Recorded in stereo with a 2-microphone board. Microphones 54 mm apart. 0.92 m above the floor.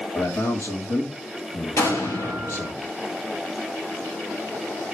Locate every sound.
0.1 s a man speaking: 70° left (ahead or behind), 2.0 m
1.8 s an explosion: 60° left (ahead or behind), 3 m